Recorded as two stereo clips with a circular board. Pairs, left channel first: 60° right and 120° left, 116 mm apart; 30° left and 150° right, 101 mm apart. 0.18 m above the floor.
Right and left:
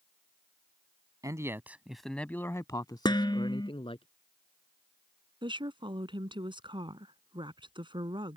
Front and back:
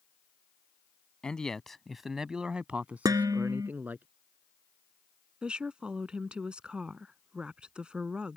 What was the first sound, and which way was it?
A man speaking, 105° left.